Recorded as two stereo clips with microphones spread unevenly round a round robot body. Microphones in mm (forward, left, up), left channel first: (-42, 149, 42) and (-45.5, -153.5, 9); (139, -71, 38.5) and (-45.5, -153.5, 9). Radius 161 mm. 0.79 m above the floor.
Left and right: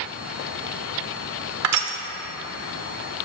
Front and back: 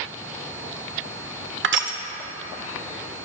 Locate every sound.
1.6 s crushing: 130° right, 1.1 m